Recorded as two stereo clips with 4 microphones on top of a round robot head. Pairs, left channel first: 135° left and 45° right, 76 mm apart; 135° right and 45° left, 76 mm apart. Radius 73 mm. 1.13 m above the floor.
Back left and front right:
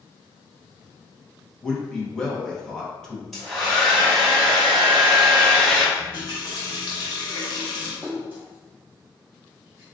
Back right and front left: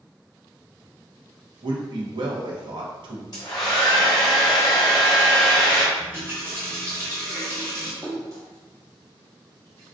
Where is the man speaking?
55° left, 0.9 m.